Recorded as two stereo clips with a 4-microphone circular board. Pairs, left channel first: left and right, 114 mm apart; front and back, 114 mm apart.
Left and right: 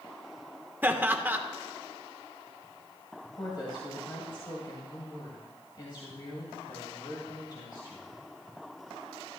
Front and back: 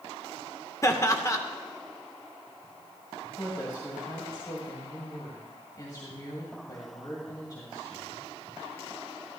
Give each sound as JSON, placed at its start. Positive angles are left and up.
{"t": 0.8, "sound": "laughter", "azimuth_deg": -30, "distance_m": 1.1}
{"t": 3.4, "sound": "a woman speaking", "azimuth_deg": 50, "distance_m": 2.0}